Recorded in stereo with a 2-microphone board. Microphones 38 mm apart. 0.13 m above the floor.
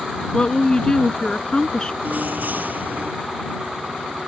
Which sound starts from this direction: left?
A woman speaking, at 0.3 s.